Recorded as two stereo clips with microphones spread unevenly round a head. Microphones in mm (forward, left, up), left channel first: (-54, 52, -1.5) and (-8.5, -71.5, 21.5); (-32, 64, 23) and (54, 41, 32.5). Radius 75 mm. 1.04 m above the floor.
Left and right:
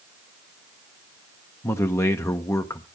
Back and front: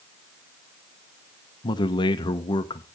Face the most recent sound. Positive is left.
turn(degrees=170)